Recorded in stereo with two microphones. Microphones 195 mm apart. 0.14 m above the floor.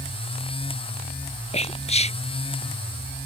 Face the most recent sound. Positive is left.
turn(degrees=35)  # may be behind; listen again after turning